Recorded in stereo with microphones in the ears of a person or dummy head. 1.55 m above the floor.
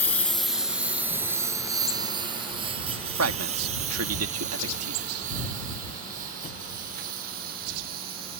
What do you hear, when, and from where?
0.0 s a lawn mower: 5° left (ahead or behind); by 8.4 s 55° right (ahead or behind)
3.2 s a man speaking: 85° right